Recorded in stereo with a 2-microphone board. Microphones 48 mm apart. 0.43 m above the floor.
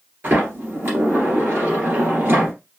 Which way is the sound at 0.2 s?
45° right (ahead or behind).